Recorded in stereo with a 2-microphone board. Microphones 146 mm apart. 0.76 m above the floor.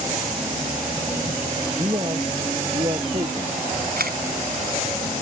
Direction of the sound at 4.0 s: 80° right.